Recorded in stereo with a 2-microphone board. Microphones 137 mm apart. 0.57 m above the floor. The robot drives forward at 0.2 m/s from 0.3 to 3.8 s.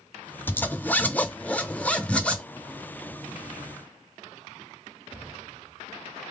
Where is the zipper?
15° left (ahead or behind), 0.6 m; by 2.4 s 10° left (ahead or behind), 1.0 m.